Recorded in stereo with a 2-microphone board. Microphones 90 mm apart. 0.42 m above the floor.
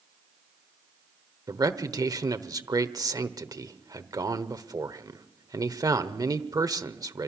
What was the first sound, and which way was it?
A man speaking, 45° right (ahead or behind).